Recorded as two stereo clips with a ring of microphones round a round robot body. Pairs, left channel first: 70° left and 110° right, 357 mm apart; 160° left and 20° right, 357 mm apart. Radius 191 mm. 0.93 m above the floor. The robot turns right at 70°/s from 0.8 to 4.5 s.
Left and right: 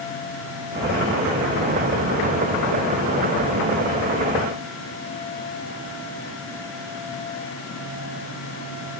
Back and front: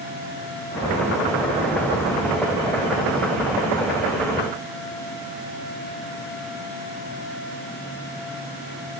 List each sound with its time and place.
Only background noise.